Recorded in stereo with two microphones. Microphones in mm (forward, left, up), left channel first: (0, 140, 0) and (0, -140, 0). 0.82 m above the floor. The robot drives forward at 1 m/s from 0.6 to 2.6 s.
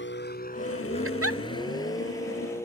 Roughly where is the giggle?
Right.